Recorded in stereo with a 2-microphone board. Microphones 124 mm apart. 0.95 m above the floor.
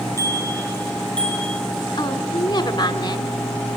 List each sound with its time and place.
0.2 s a bicycle bell: 25° left (ahead or behind), 6.5 m; by 1.6 s 5° left (ahead or behind), 6 m
2.0 s a woman speaking: 40° left (ahead or behind), 3 m